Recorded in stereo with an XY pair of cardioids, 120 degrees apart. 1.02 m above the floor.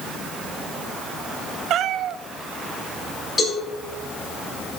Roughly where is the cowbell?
Ahead left.